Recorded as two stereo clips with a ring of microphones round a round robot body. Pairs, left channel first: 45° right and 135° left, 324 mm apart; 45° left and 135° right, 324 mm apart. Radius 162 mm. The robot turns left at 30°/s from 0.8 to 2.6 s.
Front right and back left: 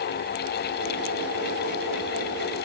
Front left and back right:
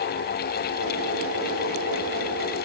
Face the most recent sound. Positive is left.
No sound to turn to.